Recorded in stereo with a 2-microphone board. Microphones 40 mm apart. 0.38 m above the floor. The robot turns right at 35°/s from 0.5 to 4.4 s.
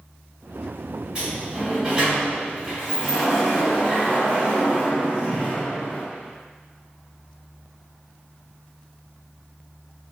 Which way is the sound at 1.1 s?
20° right (ahead or behind).